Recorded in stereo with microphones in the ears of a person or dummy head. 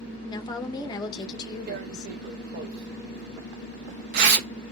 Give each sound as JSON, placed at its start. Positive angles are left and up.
{"t": 0.3, "sound": "a woman speaking", "side_deg": 25, "distance_m": 1.0}
{"t": 1.7, "sound": "tearing paper", "side_deg": -55, "distance_m": 0.7}